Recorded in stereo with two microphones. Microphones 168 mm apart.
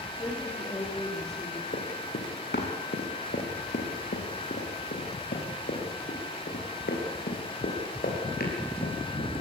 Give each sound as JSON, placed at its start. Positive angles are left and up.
{"t": 0.2, "sound": "a woman speaking", "side_deg": 20, "distance_m": 9.5}
{"t": 1.7, "sound": "running footsteps", "side_deg": 80, "distance_m": 5.0}